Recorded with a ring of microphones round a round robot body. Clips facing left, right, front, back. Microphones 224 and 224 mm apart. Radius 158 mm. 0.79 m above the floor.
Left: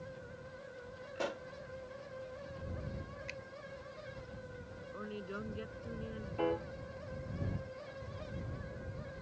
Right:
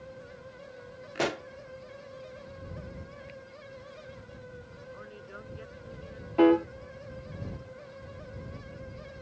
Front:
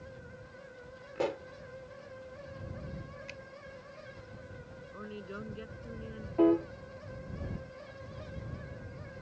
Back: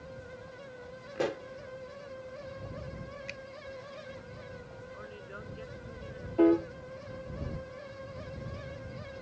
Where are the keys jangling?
I don't hear keys jangling.